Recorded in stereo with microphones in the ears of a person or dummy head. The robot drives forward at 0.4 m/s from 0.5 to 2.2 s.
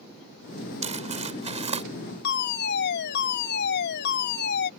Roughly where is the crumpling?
Right.